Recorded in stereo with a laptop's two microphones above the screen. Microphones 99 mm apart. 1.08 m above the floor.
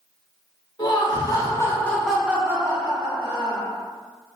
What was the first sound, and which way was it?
Laughter, 45° left (ahead or behind).